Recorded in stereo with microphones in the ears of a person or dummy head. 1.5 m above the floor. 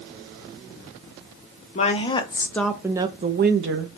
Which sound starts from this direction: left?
A woman speaking, at 1.8 s.